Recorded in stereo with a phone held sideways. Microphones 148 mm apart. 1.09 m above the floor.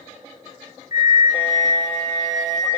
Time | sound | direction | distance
0.9 | a flute | 60° left (ahead or behind) | 0.5 m